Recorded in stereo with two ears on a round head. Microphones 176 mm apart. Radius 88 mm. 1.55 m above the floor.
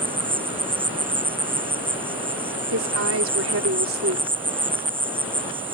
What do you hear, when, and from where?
0.0 s an insect: 10° right (ahead or behind)
2.7 s a woman speaking: 70° right (ahead or behind)